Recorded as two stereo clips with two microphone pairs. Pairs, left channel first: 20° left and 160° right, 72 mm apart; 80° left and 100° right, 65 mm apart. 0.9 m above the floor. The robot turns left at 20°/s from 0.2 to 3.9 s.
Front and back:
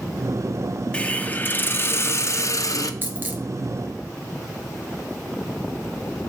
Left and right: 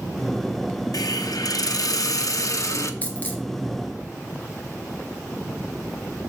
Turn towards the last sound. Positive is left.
turn(degrees=125)